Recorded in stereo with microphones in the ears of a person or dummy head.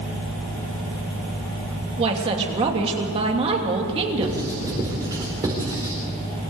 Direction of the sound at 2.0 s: 35° right (ahead or behind).